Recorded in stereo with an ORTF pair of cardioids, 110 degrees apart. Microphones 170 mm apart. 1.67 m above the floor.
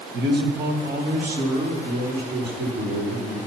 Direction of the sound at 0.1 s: 70° right.